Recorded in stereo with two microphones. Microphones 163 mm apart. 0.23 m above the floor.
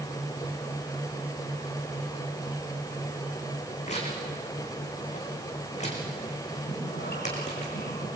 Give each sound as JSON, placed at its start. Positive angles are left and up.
{"t": 3.9, "sound": "tearing paper", "side_deg": 45, "distance_m": 4.5}
{"t": 6.7, "sound": "breathing", "side_deg": 85, "distance_m": 6.0}